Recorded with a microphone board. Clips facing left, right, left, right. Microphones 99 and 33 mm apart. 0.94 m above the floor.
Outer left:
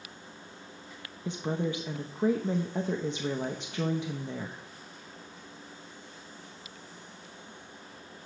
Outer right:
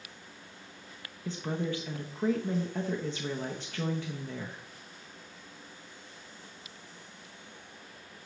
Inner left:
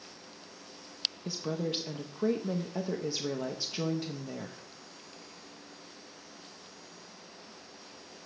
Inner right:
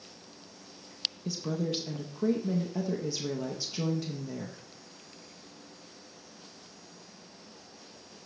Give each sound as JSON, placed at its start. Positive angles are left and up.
{"t": 1.2, "sound": "a woman speaking", "side_deg": 20, "distance_m": 0.6}